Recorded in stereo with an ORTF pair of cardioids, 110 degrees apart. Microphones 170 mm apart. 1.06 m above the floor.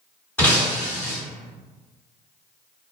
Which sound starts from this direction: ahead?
Breaking glass, at 0.4 s.